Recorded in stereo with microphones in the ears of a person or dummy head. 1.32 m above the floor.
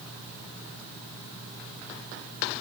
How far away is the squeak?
I don't hear a squeak.